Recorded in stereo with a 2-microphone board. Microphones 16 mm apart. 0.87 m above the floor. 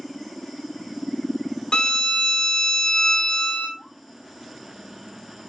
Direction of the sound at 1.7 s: 65° left (ahead or behind).